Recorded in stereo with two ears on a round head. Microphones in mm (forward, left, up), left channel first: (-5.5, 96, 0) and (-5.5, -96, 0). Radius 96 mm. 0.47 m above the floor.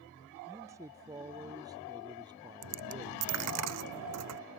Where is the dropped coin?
80° right.